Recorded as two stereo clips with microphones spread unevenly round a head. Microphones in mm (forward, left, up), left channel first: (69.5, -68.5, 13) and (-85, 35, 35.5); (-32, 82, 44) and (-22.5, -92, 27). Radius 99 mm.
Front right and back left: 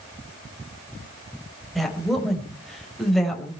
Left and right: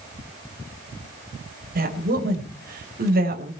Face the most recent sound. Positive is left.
turn(degrees=-125)